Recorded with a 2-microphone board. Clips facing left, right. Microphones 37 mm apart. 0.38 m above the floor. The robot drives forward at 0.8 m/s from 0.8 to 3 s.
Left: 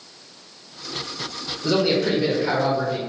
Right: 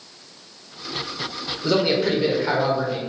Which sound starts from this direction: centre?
A man speaking, at 1.6 s.